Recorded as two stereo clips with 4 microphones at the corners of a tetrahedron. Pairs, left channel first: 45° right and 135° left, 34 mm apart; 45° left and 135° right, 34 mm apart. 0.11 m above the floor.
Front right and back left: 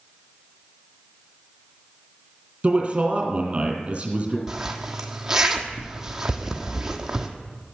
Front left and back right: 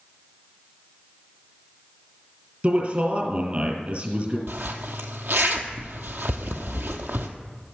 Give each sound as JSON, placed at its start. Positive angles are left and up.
{"t": 2.6, "sound": "a man speaking", "azimuth_deg": -175, "distance_m": 3.0}
{"t": 4.5, "sound": "a zipper", "azimuth_deg": -150, "distance_m": 1.2}